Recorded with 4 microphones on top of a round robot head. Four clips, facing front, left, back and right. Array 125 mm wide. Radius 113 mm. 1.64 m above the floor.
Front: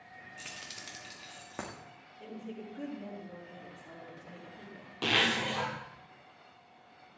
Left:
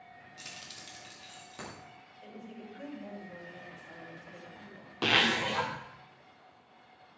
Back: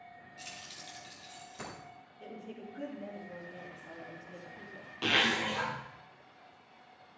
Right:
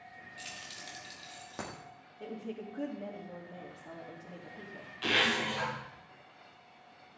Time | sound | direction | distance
0.4 | keys jangling | 30° left | 1.3 m
2.2 | a woman speaking | 80° right | 3 m
5.0 | a zipper | 75° left | 1.9 m